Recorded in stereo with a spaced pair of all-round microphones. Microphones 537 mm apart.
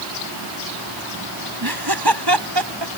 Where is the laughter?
45° right (ahead or behind); by 2.9 s 55° right (ahead or behind).